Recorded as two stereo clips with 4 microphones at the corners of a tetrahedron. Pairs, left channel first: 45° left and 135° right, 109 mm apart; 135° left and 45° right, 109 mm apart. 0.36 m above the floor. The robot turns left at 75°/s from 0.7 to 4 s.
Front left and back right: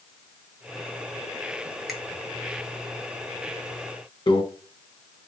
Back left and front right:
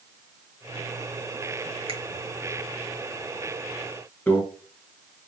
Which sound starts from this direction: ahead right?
A finger snap, at 1.9 s.